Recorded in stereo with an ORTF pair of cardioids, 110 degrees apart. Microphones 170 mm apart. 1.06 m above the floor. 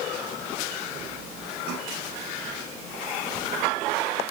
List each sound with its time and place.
Only background noise.